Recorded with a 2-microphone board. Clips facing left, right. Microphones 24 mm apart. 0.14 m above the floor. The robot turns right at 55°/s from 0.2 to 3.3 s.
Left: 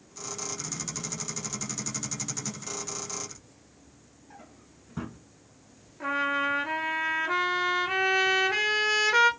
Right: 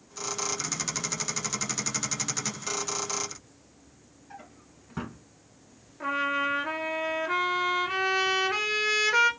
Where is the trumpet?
Centre (ahead or behind), 0.9 m.